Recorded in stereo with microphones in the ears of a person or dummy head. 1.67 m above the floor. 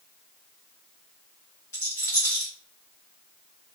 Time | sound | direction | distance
1.7 | a rattle | 10° left (ahead or behind) | 0.5 m